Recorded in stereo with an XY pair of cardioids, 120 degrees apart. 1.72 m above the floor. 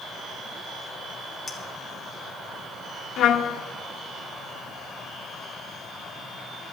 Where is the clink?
25° left, 2.5 m.